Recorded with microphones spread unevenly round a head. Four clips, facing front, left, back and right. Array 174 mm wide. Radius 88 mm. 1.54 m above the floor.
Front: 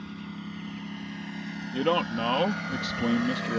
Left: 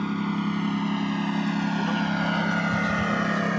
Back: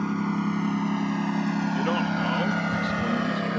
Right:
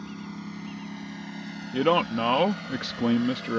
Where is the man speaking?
75° right.